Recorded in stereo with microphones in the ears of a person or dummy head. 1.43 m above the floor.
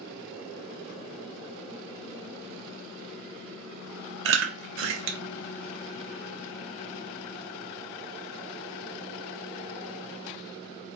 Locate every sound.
4.2 s chewing: 70° right (ahead or behind), 0.6 m